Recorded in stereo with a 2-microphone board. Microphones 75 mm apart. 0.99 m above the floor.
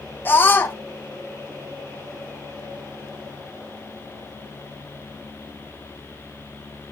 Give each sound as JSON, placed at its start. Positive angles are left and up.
{"t": 0.2, "sound": "a scream", "side_deg": 30, "distance_m": 1.1}